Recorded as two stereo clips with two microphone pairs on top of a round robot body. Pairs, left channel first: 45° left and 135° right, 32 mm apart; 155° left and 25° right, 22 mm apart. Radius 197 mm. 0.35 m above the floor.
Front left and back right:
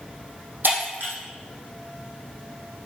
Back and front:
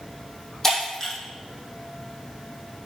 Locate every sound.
0.6 s breaking glass: 125° right, 5 m